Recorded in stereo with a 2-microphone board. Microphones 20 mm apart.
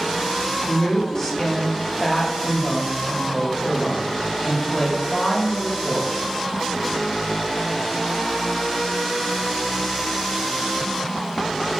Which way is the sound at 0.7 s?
20° left (ahead or behind).